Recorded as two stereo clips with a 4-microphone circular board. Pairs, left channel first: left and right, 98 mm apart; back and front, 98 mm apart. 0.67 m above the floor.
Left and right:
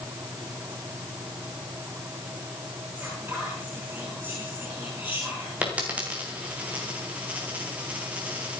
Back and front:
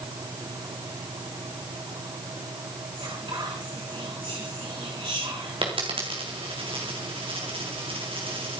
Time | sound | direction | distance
3.0 | whispering | 20° right | 6.5 m
5.6 | a dropped coin | 15° right | 3.5 m